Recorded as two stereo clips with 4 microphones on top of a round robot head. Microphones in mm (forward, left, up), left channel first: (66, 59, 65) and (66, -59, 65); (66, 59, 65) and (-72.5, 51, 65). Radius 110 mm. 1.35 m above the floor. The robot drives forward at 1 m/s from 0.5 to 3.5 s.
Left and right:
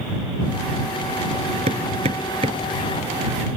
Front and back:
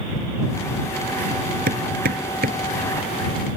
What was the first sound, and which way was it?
Hammering, 140° right.